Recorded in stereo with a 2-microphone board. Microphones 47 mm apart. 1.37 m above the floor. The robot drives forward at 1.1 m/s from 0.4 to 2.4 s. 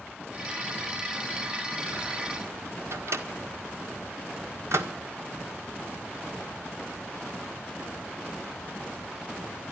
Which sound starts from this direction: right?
A microwave, at 2.9 s.